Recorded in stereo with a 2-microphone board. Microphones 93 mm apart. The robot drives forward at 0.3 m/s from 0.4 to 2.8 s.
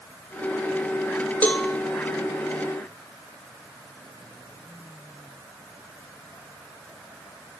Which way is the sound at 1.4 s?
20° left (ahead or behind).